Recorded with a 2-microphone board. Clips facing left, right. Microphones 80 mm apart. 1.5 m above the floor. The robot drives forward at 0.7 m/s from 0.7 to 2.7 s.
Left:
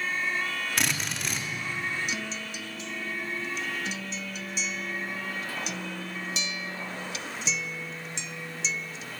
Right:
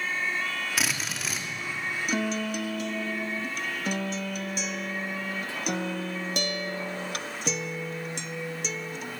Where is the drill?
5° right (ahead or behind), 3 m.